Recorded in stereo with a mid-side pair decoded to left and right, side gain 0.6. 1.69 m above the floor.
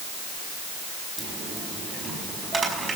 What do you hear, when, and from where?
1.2 s a dropped coin: 25° right, 5.5 m